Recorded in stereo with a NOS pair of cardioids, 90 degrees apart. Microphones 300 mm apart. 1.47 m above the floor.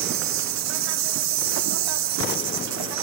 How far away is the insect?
About 0.9 m.